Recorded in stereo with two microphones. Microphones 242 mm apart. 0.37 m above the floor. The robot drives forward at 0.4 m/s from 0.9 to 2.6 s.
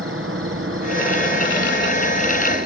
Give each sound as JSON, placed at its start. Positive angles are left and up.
{"t": 0.0, "sound": "an insect", "side_deg": -60, "distance_m": 2.5}